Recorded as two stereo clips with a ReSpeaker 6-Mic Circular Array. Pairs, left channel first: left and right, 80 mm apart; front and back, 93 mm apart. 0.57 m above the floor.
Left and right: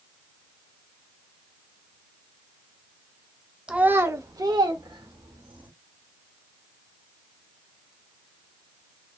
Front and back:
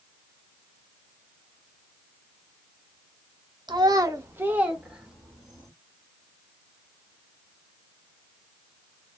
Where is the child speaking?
165° right, 0.6 m; by 5.7 s 90° right, 1.4 m.